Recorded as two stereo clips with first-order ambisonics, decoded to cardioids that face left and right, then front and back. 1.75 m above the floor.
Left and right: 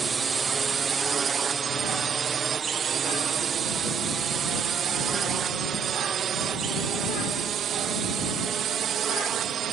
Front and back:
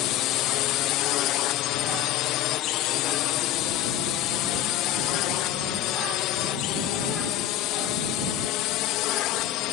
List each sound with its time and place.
0.0 s a drone: 20° right; by 9.7 s 30° right